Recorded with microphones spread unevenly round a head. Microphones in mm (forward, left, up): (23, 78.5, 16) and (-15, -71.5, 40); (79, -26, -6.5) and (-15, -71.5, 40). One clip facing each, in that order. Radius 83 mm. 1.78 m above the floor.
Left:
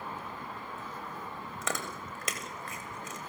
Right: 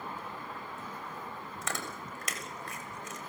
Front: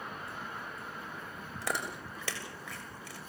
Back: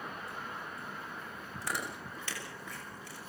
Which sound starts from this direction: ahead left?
Chewing, at 1.6 s.